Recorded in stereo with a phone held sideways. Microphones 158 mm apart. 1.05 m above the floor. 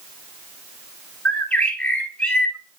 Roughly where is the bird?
Centre.